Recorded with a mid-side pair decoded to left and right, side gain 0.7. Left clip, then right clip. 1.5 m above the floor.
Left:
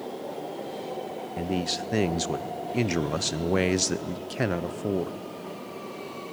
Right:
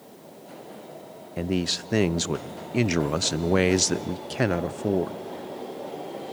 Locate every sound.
1.4 s a man speaking: 15° right, 0.6 m